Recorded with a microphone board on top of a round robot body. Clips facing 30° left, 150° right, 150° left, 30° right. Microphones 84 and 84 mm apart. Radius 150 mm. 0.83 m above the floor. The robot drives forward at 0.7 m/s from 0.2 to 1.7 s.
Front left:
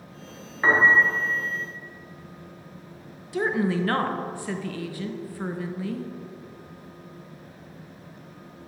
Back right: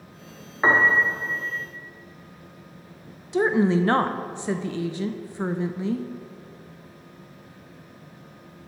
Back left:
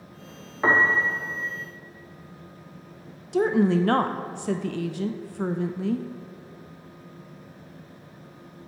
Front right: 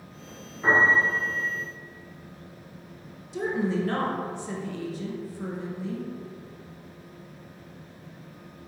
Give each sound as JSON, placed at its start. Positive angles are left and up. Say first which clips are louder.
{"t": 0.6, "sound": "a piano", "louder": "front left 1 dB, even", "azimuth_deg": 145, "distance_m": 0.8}
{"t": 3.3, "sound": "a woman speaking", "louder": "back right 4 dB, back left 6 dB", "azimuth_deg": 145, "distance_m": 0.5}